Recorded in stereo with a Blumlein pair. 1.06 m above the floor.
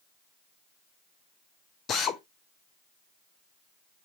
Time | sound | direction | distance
1.9 | a drill | 30° left | 0.7 m